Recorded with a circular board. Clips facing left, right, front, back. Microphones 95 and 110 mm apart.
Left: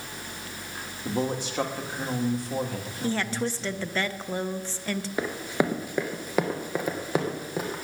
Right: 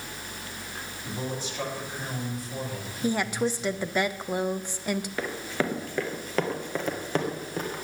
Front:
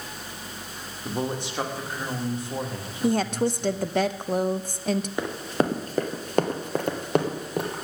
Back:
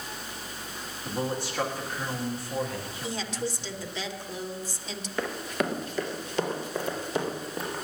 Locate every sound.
1.1 s a man speaking: 70° left, 1.8 m
3.0 s a woman speaking: 15° right, 0.5 m
5.2 s running footsteps: 50° left, 0.9 m; by 7.8 s 5° left, 2 m